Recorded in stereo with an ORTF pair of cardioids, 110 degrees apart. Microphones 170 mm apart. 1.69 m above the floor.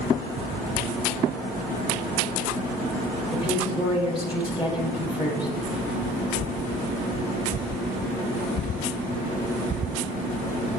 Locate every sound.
3.3 s a woman speaking: 30° left, 3 m